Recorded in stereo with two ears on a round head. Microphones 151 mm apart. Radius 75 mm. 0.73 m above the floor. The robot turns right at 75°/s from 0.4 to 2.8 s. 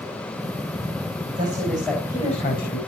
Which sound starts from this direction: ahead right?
A man speaking, at 1.4 s.